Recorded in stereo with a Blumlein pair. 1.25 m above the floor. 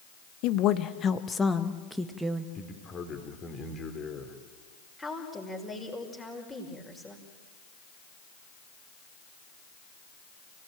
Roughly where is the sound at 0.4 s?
Ahead left.